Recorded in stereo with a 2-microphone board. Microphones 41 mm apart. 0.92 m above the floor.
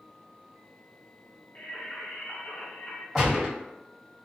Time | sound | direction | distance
1.6 | singing | 35° left (ahead or behind) | 0.9 m
3.1 | a gunshot | 5° left (ahead or behind) | 1.4 m